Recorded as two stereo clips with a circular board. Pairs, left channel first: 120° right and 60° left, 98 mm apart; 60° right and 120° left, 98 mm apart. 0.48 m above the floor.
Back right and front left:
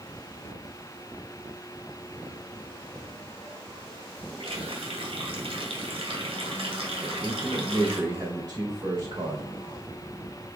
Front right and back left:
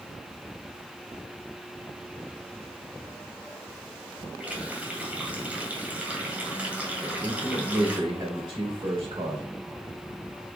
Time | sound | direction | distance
4.4 | a running tap | 45° left | 1.8 m
7.0 | a man speaking | 95° left | 2 m